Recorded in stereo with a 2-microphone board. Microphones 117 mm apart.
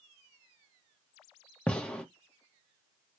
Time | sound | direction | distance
1.7 | a gunshot | 10° left (ahead or behind) | 0.8 m